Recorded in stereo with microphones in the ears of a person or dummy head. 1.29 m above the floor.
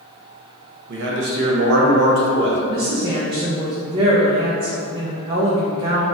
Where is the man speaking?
60° right (ahead or behind), 1.1 m.